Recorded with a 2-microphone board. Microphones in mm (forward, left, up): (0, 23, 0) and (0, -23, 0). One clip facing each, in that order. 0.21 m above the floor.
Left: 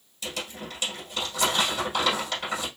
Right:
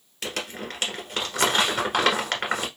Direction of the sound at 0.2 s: 70° right (ahead or behind).